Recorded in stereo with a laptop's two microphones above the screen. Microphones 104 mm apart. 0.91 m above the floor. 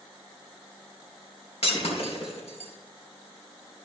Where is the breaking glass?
70° left (ahead or behind), 3.5 m.